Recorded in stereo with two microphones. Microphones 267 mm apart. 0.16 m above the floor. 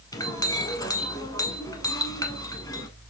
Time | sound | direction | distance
0.1 | a clink | 15° left (ahead or behind) | 0.8 m